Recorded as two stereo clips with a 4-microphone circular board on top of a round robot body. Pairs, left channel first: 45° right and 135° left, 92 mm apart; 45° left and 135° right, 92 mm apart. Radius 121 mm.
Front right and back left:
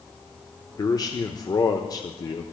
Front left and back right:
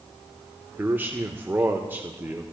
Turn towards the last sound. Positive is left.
turn(degrees=-75)